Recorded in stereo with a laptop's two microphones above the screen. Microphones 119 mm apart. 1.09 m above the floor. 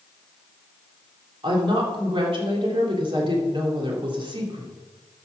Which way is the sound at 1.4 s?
45° right (ahead or behind).